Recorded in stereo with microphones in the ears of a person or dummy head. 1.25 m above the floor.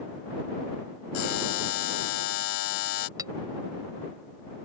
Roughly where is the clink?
Centre.